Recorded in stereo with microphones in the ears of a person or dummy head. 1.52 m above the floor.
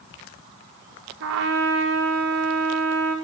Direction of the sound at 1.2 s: 85° right.